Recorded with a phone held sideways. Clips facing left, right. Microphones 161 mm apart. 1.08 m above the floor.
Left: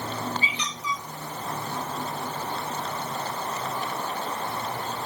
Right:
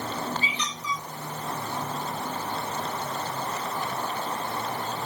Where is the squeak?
45° right (ahead or behind), 2.5 m.